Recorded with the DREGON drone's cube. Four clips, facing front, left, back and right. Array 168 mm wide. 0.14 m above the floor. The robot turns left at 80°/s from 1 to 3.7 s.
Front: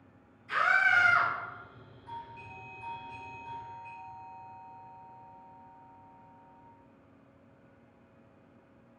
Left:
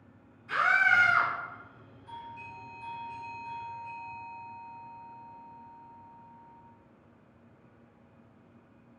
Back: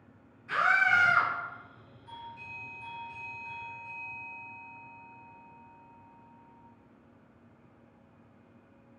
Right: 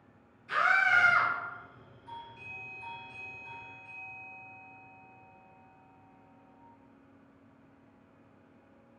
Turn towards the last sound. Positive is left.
turn(degrees=-135)